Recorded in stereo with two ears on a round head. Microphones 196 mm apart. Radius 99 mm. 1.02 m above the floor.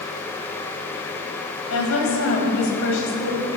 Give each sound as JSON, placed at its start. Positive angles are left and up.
{"t": 1.7, "sound": "a woman speaking", "side_deg": 80, "distance_m": 7.0}